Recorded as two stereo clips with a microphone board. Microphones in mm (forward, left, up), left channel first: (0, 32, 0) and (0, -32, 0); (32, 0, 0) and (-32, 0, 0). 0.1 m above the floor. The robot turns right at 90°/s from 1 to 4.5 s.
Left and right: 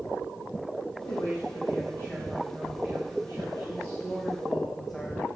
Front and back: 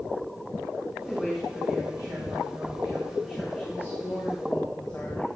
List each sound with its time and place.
1.1 s a woman speaking: 60° left, 5 m; by 5.3 s 10° left, 5 m